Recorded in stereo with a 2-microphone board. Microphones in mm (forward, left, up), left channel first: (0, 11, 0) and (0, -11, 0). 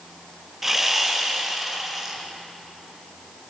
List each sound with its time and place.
0.6 s sawing: 15° right (ahead or behind), 3.5 m